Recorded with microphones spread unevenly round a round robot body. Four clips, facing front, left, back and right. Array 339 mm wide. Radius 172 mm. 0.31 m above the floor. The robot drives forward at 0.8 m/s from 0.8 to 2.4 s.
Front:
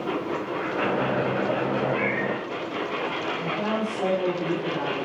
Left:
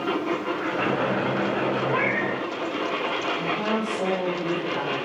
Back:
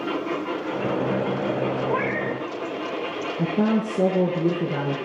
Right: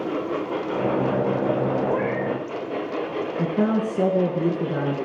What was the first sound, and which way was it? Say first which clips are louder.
A cat meowing: right 1 dB, back 1 dB; 145° left.